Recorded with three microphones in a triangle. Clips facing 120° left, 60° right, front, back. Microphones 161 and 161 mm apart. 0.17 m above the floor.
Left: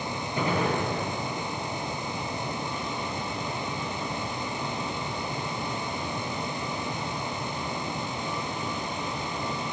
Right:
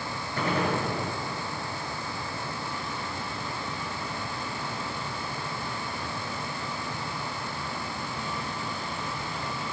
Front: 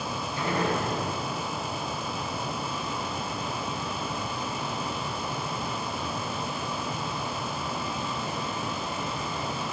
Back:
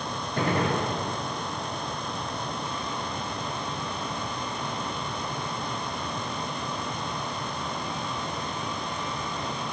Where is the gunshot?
165° right, 3.5 m.